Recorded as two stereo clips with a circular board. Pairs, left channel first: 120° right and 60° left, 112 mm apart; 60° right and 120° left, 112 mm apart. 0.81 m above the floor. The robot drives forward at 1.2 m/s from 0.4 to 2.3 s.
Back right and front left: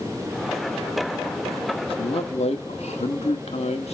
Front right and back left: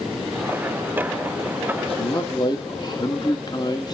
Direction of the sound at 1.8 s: 85° right.